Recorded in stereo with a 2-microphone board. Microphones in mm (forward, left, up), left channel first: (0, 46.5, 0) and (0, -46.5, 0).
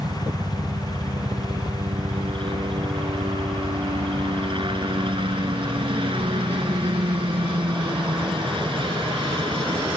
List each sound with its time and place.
0.0 s a helicopter: 65° right (ahead or behind)